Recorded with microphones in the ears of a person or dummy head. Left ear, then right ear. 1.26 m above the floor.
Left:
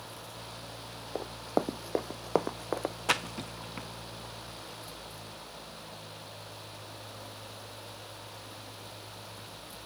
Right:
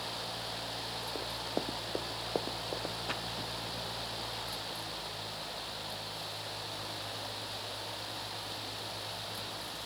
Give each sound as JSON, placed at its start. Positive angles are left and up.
{"t": 1.1, "sound": "running footsteps", "side_deg": 20}
{"t": 3.1, "sound": "a splash", "side_deg": 45}